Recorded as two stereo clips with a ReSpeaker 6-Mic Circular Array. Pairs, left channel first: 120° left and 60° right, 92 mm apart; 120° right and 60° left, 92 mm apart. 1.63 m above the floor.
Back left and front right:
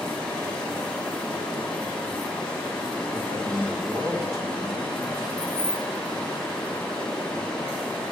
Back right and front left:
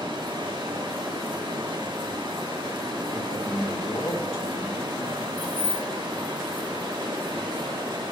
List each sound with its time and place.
0.0 s running water: 40° left, 3.5 m
3.1 s a man speaking: 105° right, 3 m
5.4 s keys jangling: 10° right, 2 m